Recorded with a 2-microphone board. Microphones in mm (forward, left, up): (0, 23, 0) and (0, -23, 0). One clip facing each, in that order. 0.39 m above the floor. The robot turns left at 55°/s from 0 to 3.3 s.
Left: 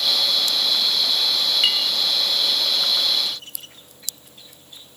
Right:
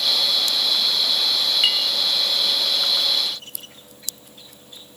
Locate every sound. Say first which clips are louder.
1.6 s a clink: even; 5° right (ahead or behind), 1.5 m; by 1.9 s 10° left (ahead or behind), 1.5 m